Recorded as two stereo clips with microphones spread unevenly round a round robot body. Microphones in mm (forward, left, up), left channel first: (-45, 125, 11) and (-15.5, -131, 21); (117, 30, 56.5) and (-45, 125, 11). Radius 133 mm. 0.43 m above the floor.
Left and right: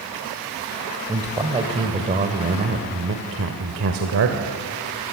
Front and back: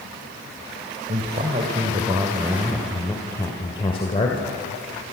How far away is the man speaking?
About 1.9 m.